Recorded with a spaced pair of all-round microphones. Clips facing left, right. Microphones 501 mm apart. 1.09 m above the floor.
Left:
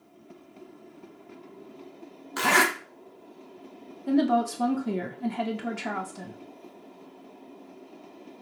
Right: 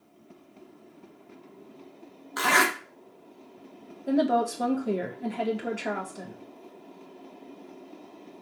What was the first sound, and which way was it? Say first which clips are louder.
A zipper: left 1 dB; 50° left (ahead or behind).